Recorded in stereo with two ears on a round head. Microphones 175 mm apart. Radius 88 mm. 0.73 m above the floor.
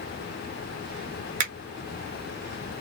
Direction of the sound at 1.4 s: 40° right (ahead or behind).